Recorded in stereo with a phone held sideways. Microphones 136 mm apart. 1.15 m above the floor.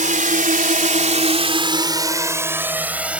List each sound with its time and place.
0.0 s a drone: 70° right (ahead or behind); by 3.2 s 10° right (ahead or behind)